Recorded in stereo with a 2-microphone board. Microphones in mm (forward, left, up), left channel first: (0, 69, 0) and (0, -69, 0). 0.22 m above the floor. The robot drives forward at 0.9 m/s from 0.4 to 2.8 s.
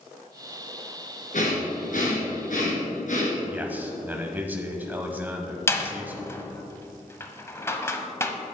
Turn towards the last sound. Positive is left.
turn(degrees=20)  # may be behind; listen again after turning